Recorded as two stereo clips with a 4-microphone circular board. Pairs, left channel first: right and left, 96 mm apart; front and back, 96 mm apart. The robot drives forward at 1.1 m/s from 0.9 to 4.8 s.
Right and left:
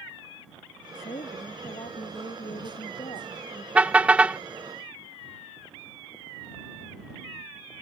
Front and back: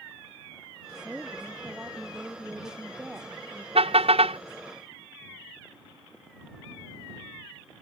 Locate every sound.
0.9 s a woman speaking: 95° right; by 3.6 s 110° right
3.8 s a car horn: 165° left; by 4.4 s 170° left